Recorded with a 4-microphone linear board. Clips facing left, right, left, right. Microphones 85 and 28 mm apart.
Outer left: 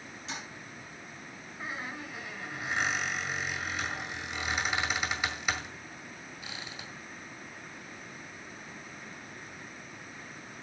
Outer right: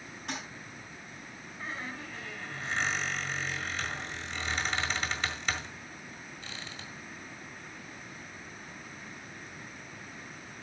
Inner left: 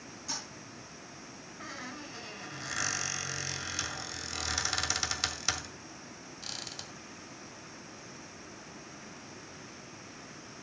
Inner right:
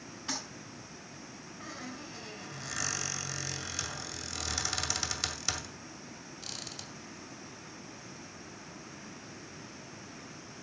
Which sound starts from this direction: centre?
A squeak, at 1.6 s.